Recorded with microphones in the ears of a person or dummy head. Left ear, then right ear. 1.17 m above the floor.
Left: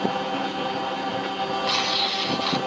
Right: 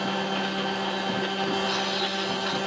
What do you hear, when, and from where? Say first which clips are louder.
0.0 s a machine running: left 2 dB; 60° right (ahead or behind), 1.1 m
1.6 s tearing paper: left 4 dB; 15° left (ahead or behind), 3 m